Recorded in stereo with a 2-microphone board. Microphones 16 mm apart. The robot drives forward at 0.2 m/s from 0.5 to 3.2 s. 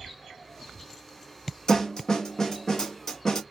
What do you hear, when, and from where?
1.7 s a snare drum: 50° left (ahead or behind), 0.7 m; by 3.4 s 35° left (ahead or behind), 0.9 m